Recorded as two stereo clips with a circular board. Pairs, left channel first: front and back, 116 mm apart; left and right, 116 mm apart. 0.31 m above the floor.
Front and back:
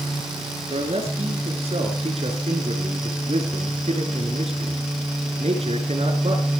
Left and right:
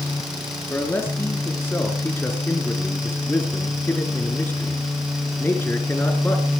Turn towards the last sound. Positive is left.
turn(degrees=160)